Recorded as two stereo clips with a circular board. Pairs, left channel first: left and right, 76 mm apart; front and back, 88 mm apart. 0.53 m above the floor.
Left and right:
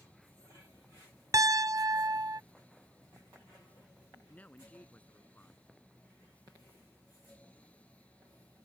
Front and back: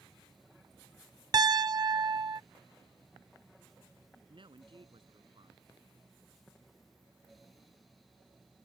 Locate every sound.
1.3 s a piano: 135° right
4.3 s a woman speaking: 160° left